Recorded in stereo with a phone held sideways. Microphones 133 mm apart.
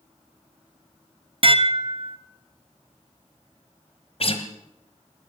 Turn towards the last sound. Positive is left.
turn(degrees=50)  # may be behind; listen again after turning